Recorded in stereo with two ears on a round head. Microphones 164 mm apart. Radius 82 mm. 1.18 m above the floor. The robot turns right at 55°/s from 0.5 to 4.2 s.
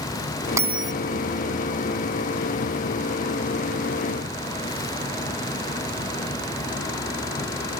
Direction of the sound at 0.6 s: 15° right (ahead or behind).